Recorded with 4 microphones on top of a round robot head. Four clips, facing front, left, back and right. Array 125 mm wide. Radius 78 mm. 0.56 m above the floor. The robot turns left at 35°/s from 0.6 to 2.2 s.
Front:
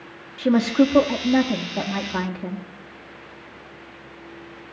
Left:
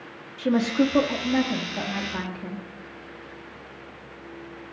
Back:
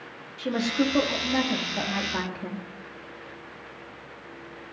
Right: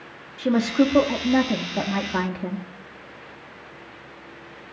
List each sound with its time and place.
0.4 s a woman speaking: 10° right, 0.8 m; by 2.6 s 65° right, 0.8 m